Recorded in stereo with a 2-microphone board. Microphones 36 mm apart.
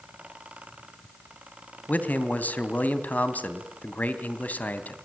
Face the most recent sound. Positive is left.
turn(degrees=55)  # may be behind; listen again after turning